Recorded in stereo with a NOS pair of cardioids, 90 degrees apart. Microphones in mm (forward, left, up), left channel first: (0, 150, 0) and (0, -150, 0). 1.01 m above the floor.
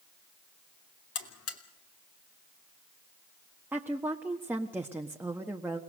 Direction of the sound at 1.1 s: 55° left.